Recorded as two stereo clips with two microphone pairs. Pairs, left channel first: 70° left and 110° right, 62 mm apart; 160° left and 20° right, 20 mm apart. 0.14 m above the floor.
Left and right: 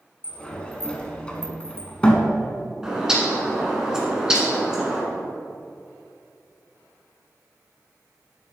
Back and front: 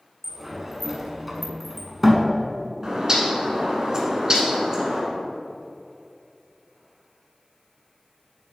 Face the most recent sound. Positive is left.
turn(degrees=-40)